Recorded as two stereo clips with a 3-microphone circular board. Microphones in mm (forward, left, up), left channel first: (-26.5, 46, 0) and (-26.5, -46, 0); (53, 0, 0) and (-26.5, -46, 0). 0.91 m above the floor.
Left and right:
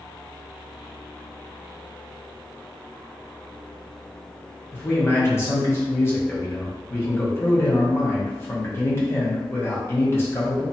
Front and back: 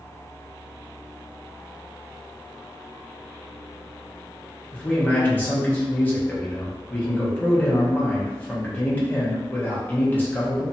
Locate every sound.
4.7 s a man speaking: 75° left, 0.8 m